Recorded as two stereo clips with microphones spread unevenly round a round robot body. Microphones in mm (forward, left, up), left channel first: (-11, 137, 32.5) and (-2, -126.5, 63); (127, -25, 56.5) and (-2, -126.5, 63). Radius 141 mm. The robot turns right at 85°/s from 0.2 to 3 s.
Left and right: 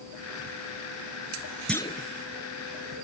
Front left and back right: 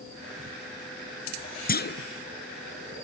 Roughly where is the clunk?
Ahead.